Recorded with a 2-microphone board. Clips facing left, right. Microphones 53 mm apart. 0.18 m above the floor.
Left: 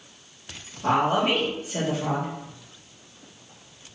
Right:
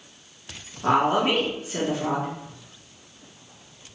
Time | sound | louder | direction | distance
0.8 | a woman speaking | right 1 dB | 35° right (ahead or behind) | 1.8 m